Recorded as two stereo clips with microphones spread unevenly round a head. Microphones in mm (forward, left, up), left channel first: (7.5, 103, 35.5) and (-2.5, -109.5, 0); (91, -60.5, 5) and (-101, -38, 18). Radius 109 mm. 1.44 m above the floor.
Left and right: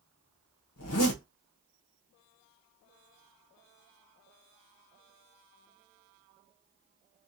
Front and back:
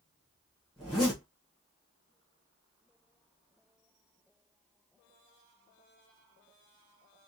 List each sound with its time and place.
0.8 s a zipper: 85° left, 0.8 m